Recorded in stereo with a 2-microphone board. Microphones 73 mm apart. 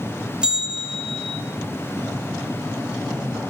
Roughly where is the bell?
Centre.